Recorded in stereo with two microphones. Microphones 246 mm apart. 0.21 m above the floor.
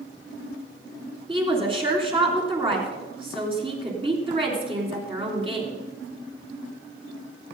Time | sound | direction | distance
1.3 | a woman speaking | 20° right (ahead or behind) | 3 m